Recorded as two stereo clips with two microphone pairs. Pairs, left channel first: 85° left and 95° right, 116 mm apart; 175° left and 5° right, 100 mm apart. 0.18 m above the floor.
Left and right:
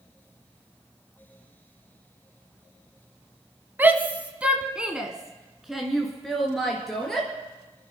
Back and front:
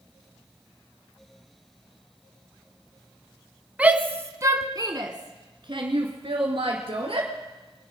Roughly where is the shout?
Ahead right.